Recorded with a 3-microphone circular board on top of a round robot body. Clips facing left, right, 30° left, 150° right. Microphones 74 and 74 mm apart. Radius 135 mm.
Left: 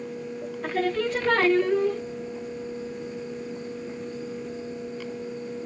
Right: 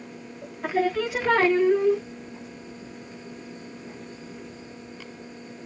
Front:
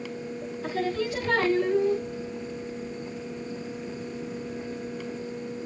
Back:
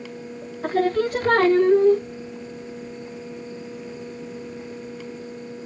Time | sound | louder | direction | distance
0.6 | singing | right 2 dB, back 8 dB | 170° right | 0.7 m